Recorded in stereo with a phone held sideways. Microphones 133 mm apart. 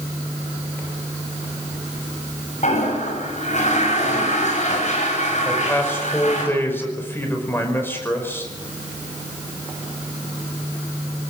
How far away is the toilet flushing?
About 8 m.